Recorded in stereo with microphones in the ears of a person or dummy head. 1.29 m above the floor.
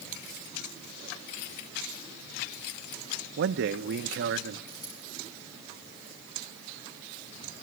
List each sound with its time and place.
3.4 s a man speaking: 70° right (ahead or behind), 0.7 m
4.7 s a dropped coin: 20° left (ahead or behind), 5 m